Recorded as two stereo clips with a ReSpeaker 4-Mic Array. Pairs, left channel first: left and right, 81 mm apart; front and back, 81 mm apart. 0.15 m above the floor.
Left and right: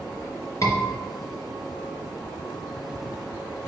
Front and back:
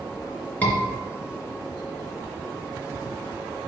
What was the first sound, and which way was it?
A scream, 65° left.